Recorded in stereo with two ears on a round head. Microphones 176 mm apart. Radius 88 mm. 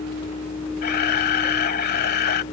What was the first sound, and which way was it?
A camera shutter, 50° left (ahead or behind).